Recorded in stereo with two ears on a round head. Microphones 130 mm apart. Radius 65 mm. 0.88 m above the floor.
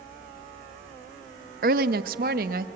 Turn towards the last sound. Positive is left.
turn(degrees=-65)  # may be behind; listen again after turning